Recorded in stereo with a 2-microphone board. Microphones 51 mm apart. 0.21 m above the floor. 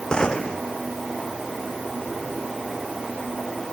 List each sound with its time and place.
0.1 s a gunshot: 20° left (ahead or behind)